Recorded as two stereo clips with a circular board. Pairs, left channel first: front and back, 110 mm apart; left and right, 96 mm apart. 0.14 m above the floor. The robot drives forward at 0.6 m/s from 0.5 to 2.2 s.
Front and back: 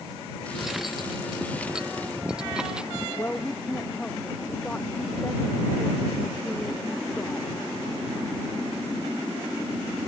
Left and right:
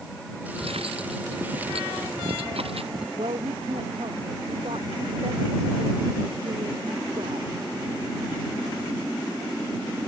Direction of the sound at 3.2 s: 75° right.